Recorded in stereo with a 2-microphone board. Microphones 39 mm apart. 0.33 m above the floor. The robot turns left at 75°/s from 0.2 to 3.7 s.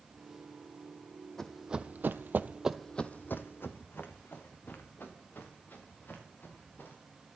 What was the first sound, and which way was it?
Running footsteps, 15° left (ahead or behind).